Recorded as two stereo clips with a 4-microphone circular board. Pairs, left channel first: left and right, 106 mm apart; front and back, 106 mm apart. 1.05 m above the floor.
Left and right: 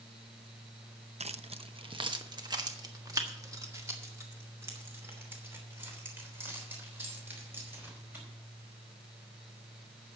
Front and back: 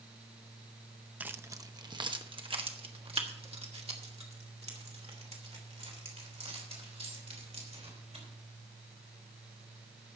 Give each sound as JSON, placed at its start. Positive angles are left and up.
{"t": 1.2, "sound": "keys jangling", "azimuth_deg": -105, "distance_m": 0.6}